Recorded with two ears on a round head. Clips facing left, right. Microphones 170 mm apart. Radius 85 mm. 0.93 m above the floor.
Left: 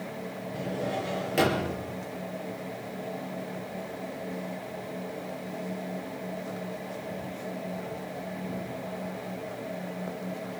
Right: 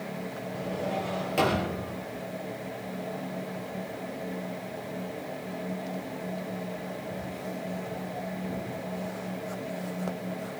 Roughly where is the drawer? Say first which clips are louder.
Even; centre.